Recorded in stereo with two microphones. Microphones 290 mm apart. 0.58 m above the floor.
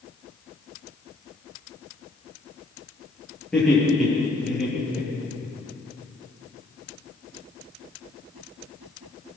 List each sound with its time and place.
3.5 s laughter: centre (ahead or behind), 9 m; by 5.5 s 5° right (ahead or behind), 9.5 m